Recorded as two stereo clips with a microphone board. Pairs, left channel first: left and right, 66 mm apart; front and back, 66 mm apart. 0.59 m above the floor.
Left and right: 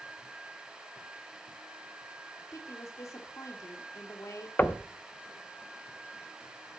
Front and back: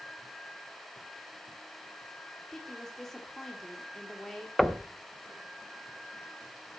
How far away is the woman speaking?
About 1.6 m.